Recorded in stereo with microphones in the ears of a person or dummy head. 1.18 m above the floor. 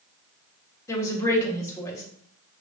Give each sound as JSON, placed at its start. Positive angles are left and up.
{"t": 0.9, "sound": "a woman speaking", "side_deg": 20, "distance_m": 1.0}